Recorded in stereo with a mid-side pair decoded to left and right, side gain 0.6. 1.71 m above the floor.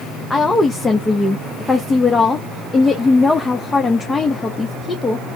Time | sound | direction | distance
0.3 | a woman speaking | 20° left | 0.6 m